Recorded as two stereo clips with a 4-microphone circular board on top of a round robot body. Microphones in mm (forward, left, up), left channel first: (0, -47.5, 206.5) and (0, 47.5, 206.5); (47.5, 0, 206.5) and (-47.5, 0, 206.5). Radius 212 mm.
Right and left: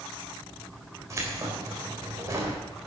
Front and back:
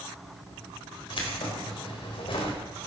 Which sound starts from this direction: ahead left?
Keys jangling, at 1.1 s.